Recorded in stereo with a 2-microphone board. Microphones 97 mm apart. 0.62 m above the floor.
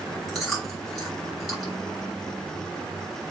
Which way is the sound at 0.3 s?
Centre (ahead or behind).